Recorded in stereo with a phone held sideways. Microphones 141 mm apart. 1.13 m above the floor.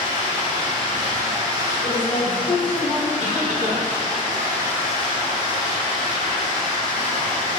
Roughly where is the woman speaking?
Left.